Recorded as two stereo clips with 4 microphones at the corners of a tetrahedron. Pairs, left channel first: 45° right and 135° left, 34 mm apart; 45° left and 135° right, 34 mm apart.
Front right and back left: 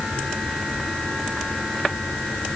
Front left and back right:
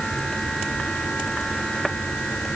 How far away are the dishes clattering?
No dishes clattering in this recording.